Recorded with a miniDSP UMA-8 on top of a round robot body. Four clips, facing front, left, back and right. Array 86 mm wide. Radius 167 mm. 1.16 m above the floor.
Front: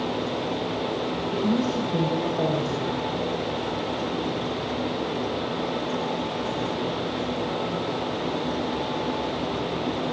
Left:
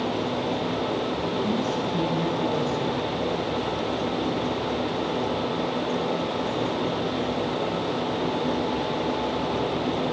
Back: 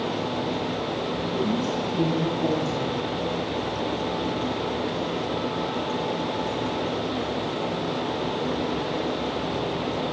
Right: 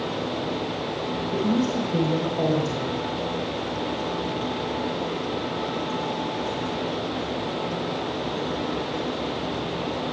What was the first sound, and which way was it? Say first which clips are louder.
A woman speaking: right 6 dB, front 2 dB; 45° right.